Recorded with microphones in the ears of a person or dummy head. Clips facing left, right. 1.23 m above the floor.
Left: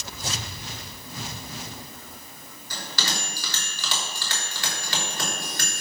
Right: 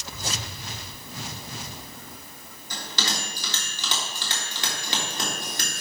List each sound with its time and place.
2.7 s a bell: 25° right (ahead or behind), 3 m